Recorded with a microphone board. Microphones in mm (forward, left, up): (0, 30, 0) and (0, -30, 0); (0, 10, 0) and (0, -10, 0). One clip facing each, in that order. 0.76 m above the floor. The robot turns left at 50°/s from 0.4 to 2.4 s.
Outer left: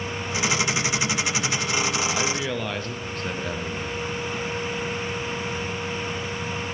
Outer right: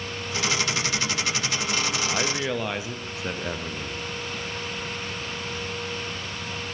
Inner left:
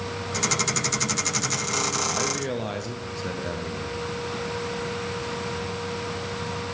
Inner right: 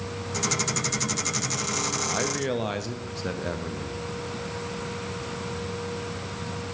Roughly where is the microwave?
No microwave in this recording.